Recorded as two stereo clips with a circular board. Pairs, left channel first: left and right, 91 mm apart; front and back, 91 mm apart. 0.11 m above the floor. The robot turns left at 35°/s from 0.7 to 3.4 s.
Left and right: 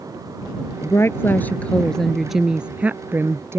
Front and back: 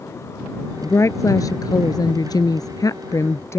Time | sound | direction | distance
0.8 | a woman speaking | 50° left | ?